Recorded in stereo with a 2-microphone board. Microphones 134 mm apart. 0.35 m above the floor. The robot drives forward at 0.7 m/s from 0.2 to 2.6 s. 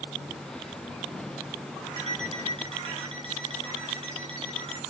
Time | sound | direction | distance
2.0 | an alarm clock | 50° right (ahead or behind) | 2 m